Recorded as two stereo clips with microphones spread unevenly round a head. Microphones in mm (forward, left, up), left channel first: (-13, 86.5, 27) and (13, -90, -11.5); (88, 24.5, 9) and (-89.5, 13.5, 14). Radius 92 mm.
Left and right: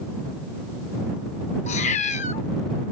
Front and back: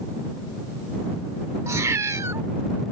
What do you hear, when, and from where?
1.7 s a cat meowing: 115° left